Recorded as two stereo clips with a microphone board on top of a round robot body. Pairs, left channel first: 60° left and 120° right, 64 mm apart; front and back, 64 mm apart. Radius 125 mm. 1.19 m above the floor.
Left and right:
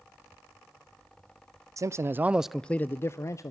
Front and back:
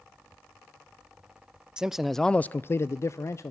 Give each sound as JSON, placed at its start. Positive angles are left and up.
{"t": 1.8, "sound": "a man speaking", "azimuth_deg": -105, "distance_m": 0.6}